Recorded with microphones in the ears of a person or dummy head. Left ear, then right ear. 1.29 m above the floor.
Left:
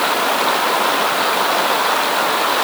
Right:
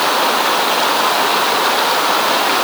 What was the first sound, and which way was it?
Only background noise.